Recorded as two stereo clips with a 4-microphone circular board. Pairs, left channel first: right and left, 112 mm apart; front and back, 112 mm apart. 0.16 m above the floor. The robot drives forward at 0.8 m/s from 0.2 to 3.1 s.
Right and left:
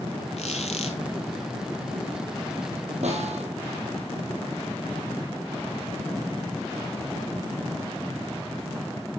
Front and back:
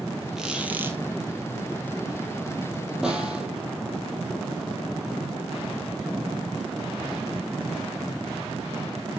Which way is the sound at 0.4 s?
95° right.